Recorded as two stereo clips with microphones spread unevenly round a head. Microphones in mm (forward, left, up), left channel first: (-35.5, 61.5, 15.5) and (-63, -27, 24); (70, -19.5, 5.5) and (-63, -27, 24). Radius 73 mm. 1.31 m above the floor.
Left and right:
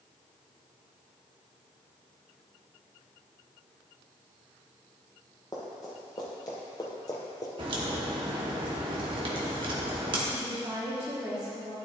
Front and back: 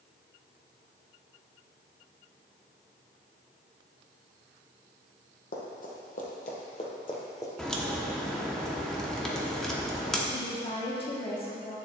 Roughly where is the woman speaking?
Ahead right.